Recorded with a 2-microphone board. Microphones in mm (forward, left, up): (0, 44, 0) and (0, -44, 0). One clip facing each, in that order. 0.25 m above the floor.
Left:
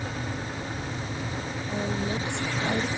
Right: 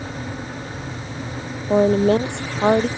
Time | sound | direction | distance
1.7 | a woman speaking | 80° right | ?